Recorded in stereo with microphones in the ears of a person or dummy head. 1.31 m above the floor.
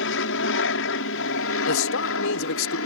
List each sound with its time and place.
0.0 s an aircraft: 65° left (ahead or behind)
1.7 s a man speaking: 75° left (ahead or behind)